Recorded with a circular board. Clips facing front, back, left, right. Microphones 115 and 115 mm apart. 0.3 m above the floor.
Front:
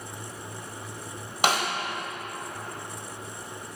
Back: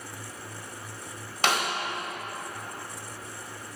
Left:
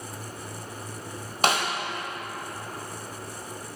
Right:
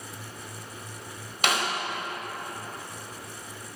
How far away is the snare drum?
About 1.2 m.